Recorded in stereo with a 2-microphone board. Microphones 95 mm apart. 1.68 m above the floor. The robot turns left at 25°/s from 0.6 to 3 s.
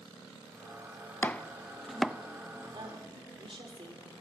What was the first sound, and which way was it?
Chopping, 20° left (ahead or behind).